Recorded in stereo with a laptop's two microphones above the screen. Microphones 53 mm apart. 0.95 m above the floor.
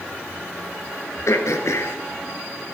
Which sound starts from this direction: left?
Throat clearing, at 1.3 s.